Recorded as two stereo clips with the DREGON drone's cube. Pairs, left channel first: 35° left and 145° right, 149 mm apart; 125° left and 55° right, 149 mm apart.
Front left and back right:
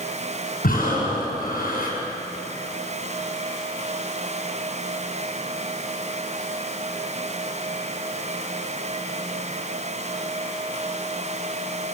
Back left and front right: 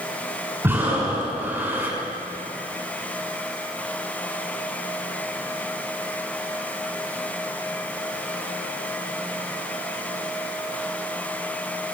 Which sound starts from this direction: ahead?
Breathing, at 0.6 s.